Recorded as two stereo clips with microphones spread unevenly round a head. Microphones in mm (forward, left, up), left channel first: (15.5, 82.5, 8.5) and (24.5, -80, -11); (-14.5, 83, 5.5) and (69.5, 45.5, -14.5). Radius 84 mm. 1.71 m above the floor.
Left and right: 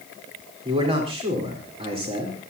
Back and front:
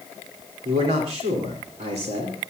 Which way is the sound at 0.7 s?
30° right.